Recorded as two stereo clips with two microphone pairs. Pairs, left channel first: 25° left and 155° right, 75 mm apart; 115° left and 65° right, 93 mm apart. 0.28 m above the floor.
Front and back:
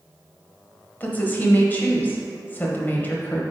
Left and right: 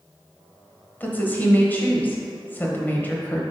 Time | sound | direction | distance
1.0 | a woman speaking | 60° left | 1.0 m